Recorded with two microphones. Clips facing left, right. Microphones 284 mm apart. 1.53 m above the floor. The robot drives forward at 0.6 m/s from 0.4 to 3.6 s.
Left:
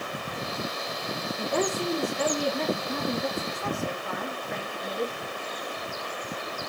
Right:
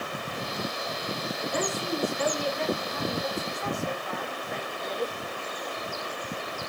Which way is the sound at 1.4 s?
60° left (ahead or behind).